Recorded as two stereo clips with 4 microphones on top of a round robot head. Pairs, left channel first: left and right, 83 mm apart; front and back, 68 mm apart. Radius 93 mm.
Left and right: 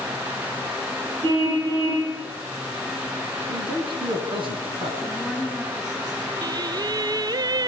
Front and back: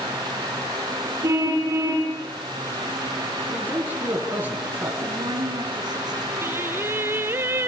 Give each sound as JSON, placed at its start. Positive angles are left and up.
{"t": 1.2, "sound": "a car horn", "azimuth_deg": -130, "distance_m": 7.0}
{"t": 3.5, "sound": "a man speaking", "azimuth_deg": -115, "distance_m": 5.5}
{"t": 5.0, "sound": "a woman speaking", "azimuth_deg": 180, "distance_m": 6.0}
{"t": 6.4, "sound": "singing", "azimuth_deg": -125, "distance_m": 0.5}